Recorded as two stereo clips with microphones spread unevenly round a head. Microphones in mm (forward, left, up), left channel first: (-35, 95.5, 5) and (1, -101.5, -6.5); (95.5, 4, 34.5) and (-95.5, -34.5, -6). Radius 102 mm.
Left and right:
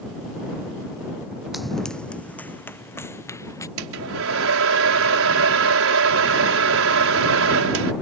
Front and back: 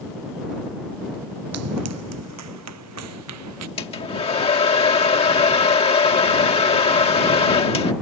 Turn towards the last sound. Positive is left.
turn(degrees=-50)